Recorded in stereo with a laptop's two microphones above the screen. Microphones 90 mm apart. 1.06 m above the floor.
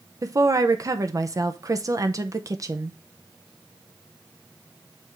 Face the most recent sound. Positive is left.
turn(degrees=-40)  # may be behind; listen again after turning